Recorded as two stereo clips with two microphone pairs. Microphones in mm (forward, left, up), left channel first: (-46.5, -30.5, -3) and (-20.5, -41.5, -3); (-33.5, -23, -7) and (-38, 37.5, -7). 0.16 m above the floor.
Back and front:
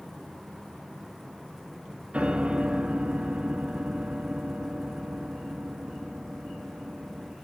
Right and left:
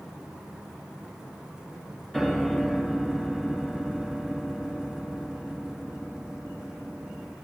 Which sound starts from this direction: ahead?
A piano, at 2.1 s.